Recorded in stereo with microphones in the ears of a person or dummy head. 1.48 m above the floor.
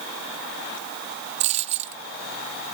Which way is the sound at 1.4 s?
35° right (ahead or behind).